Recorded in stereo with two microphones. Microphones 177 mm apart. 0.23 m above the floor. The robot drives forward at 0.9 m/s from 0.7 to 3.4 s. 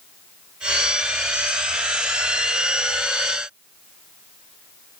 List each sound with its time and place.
Only background noise.